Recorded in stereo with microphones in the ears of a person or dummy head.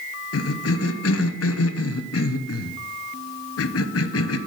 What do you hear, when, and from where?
0.3 s a cough: 75° left (ahead or behind), 0.8 m